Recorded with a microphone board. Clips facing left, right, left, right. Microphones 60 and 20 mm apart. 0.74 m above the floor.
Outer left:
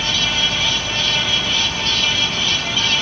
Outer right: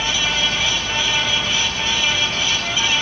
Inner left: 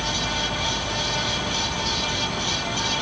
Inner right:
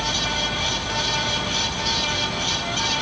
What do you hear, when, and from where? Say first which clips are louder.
0.0 s an insect: even, inner right 2 dB; 25° left (ahead or behind), 0.7 m